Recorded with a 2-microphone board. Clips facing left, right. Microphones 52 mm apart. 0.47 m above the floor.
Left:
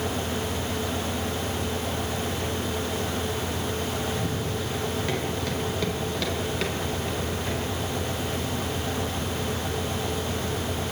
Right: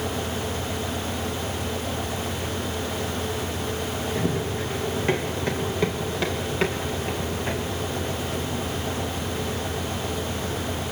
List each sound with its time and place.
4.2 s running footsteps: 35° right (ahead or behind), 4.5 m; by 10.8 s 15° right (ahead or behind), 12 m